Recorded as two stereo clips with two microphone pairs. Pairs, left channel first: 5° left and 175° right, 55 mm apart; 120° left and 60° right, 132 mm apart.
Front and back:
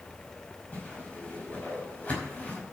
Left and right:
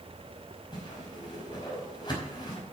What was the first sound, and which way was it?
A whoosh, 65° left.